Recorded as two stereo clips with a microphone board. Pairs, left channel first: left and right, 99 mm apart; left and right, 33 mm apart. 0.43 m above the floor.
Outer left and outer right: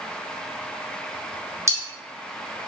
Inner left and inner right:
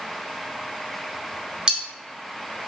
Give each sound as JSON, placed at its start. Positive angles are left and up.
{"t": 1.7, "sound": "cutlery clinking", "side_deg": -30, "distance_m": 0.6}